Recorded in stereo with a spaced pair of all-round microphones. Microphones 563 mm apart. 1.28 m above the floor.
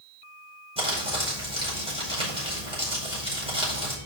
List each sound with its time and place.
0.8 s crumpling: 10° right (ahead or behind), 5 m